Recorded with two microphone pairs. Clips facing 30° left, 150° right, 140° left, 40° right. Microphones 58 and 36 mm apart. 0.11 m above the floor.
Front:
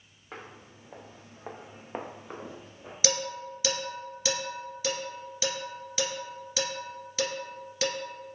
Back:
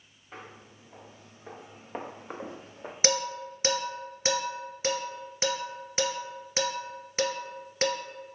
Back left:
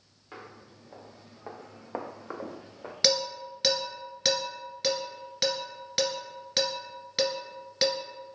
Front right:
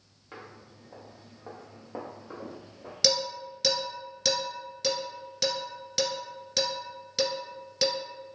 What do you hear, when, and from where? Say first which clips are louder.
0.3 s footsteps: front 1 dB, even; 50° left, 1.3 m; by 2.9 s 165° left, 0.7 m
3.0 s dishes clattering: back 2 dB, back left 1 dB; 175° right, 1.2 m